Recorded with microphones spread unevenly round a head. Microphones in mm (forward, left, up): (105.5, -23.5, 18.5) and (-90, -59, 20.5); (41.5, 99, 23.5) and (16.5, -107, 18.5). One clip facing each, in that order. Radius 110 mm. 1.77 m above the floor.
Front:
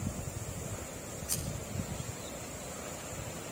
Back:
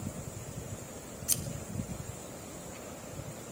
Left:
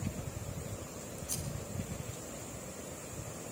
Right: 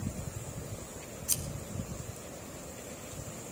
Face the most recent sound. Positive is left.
turn(degrees=-145)